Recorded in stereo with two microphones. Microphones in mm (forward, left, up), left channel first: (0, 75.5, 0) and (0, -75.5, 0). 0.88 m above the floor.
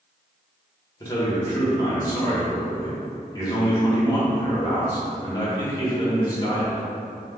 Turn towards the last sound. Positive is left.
turn(degrees=25)  # may be behind; listen again after turning